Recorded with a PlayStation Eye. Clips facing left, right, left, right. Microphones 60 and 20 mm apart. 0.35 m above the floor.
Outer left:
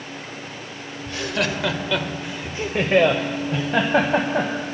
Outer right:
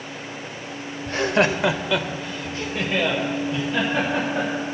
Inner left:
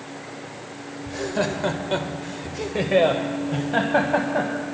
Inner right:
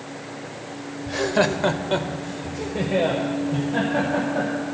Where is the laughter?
45° right (ahead or behind), 1.0 m; by 4.5 s 60° left (ahead or behind), 2 m.